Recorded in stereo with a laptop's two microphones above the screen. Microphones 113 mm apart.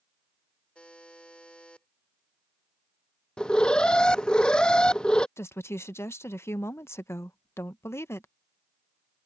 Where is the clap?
I don't hear a clap.